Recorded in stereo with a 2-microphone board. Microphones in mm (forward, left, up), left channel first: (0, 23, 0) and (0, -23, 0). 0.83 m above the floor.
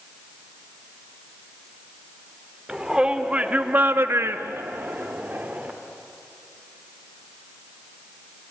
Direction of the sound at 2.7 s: 15° right (ahead or behind).